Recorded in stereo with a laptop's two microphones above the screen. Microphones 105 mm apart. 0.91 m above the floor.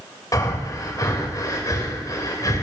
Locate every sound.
0.3 s breathing: 40° left (ahead or behind), 2.5 m